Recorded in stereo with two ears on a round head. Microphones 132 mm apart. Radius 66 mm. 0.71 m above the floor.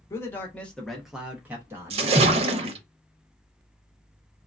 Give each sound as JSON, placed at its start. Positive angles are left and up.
{"t": 0.1, "sound": "a man speaking", "side_deg": 20, "distance_m": 0.9}
{"t": 1.9, "sound": "a splash", "side_deg": -40, "distance_m": 0.6}